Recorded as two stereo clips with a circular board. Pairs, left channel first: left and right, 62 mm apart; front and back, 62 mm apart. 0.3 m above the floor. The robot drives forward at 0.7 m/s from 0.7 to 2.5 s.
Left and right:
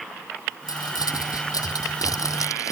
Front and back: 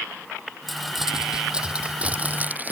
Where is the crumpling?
90° left; by 2.7 s 120° left.